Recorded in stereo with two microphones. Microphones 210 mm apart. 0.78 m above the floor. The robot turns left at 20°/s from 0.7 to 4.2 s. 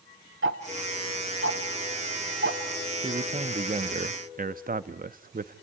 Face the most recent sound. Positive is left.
turn(degrees=-45)  # may be behind; listen again after turning